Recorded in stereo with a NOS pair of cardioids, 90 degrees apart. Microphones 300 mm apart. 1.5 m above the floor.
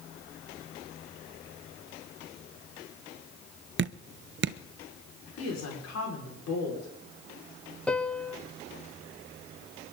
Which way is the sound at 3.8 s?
40° right.